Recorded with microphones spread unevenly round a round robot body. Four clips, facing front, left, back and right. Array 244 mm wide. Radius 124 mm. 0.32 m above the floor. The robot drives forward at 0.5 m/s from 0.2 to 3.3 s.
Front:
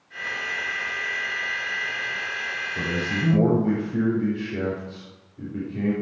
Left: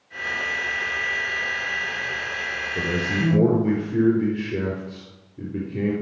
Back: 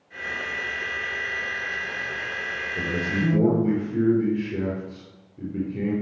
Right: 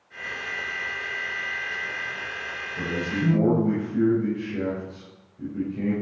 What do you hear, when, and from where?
2.8 s a man speaking: 100° left, 5 m; by 5.9 s 105° left, 5 m